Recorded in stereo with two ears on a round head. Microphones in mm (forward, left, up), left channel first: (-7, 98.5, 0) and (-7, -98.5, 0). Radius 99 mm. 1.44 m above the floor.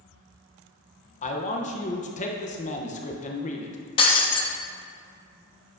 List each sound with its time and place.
1.2 s a man speaking: 35° left (ahead or behind), 0.9 m
4.0 s breaking glass: 25° left (ahead or behind), 0.9 m